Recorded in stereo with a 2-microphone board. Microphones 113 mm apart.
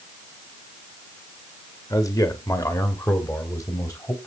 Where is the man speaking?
30° left (ahead or behind), 1.8 m.